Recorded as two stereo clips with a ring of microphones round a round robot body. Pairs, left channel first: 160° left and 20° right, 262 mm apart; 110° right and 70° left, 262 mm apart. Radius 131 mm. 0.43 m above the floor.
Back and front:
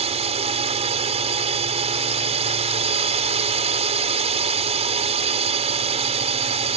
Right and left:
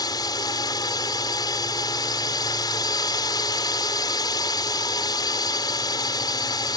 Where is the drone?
55° right.